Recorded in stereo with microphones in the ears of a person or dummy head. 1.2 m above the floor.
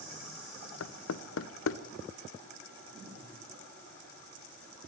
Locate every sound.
0.8 s knocking: 65° left (ahead or behind), 0.6 m